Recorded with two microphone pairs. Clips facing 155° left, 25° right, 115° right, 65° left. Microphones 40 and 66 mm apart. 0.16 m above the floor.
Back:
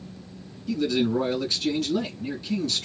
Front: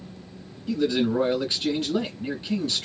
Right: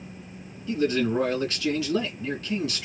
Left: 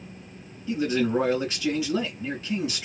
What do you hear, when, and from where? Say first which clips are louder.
0.7 s a man speaking: front 1 dB, even; 10° left, 1.7 m